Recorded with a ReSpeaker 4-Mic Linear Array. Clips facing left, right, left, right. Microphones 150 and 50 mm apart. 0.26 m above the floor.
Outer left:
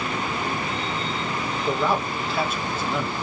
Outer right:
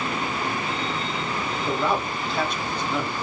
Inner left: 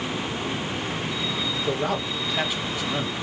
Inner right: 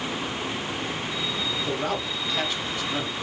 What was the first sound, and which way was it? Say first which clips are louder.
A man speaking: outer left 1 dB, inner left 4 dB; 5° left (ahead or behind).